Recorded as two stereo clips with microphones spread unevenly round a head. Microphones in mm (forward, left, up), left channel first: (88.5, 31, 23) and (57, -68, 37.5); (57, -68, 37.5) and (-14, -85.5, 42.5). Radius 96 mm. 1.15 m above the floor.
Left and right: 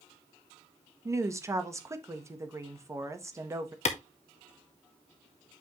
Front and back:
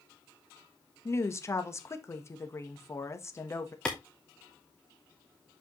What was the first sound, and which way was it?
A woman speaking, 40° right.